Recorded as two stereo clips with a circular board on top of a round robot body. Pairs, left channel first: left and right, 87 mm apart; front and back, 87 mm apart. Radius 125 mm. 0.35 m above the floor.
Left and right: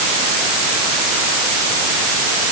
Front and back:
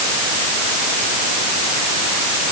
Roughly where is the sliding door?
I don't hear a sliding door.